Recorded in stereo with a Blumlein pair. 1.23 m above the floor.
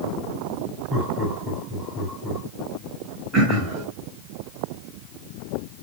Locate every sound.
0.9 s laughter: 15° right, 6.5 m
3.3 s throat clearing: 20° right, 5.5 m